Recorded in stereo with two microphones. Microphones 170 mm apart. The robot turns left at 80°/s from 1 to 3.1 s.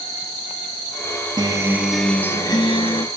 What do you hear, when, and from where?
1.4 s a guitar: 130° right, 1.0 m; by 3.1 s 95° left, 1.0 m